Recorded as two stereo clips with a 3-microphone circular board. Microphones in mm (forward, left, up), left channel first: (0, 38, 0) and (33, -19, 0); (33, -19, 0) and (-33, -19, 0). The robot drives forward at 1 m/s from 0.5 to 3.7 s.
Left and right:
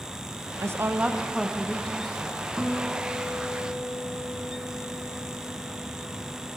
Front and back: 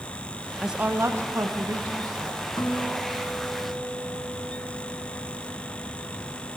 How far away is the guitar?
About 3 m.